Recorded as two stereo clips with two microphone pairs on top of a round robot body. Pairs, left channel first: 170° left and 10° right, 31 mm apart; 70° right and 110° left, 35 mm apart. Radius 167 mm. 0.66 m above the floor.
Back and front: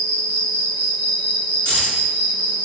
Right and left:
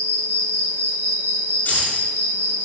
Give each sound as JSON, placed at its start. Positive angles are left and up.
{"t": 0.0, "sound": "an insect", "azimuth_deg": -50, "distance_m": 1.1}
{"t": 1.6, "sound": "keys jangling", "azimuth_deg": -25, "distance_m": 7.0}